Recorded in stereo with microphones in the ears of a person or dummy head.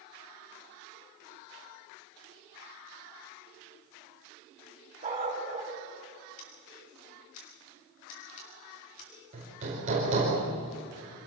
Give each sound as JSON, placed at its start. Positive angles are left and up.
{"t": 5.0, "sound": "a dog barking", "side_deg": -35, "distance_m": 4.0}
{"t": 6.4, "sound": "scissors", "side_deg": 45, "distance_m": 5.5}
{"t": 9.3, "sound": "hammering", "side_deg": -35, "distance_m": 4.5}